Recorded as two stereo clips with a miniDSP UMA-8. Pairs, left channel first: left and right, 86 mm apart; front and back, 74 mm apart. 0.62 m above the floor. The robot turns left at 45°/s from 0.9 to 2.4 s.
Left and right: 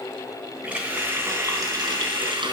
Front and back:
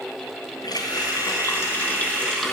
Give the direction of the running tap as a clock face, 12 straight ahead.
12 o'clock.